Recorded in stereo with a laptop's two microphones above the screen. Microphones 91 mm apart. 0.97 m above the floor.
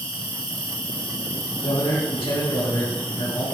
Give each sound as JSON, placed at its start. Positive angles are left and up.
{"t": 0.0, "sound": "an insect", "side_deg": 80, "distance_m": 4.5}
{"t": 1.6, "sound": "a man speaking", "side_deg": 65, "distance_m": 3.0}